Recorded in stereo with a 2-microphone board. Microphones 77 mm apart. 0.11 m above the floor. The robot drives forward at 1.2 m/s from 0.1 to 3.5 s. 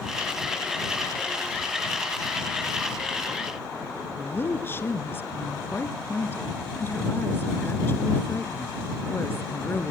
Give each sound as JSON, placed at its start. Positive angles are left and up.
{"t": 4.2, "sound": "a woman speaking", "side_deg": 30, "distance_m": 1.4}